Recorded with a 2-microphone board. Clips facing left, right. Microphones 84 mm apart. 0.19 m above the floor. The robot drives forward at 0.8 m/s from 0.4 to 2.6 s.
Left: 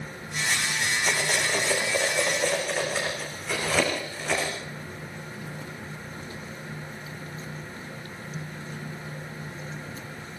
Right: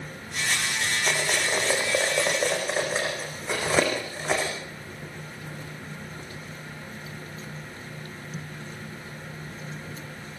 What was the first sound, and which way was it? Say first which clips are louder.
Cutlery clinking: right 1 dB; 25° right (ahead or behind).